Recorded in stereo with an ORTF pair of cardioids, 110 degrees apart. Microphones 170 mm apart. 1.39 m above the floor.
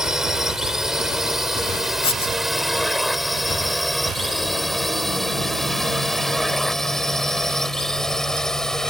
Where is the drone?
5° right; by 8.9 s 5° left.